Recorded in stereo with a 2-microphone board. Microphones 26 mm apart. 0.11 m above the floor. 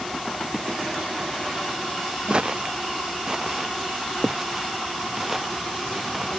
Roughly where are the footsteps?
Right.